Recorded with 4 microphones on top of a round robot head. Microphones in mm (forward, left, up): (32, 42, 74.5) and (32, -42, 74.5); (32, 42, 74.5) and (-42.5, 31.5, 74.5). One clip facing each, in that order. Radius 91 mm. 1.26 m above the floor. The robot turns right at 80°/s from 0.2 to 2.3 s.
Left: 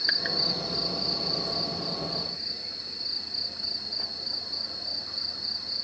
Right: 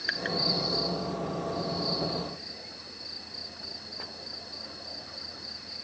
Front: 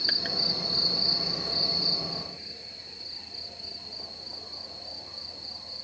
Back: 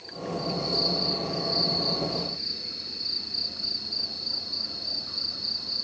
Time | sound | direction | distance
0.0 | an insect | 5° left | ?